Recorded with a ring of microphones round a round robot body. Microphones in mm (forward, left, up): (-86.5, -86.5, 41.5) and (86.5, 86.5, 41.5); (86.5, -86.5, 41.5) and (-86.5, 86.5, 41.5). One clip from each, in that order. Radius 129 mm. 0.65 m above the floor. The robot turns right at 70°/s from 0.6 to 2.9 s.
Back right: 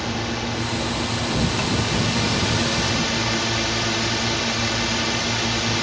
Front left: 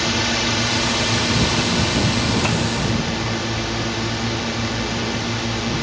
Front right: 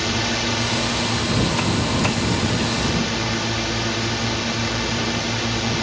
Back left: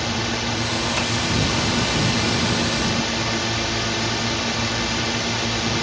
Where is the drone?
40° left; by 5.8 s 160° right.